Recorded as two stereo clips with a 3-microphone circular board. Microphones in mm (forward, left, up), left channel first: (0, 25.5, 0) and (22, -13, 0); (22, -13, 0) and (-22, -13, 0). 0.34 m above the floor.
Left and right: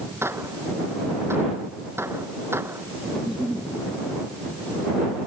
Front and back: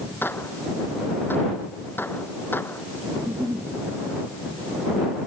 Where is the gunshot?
40° right.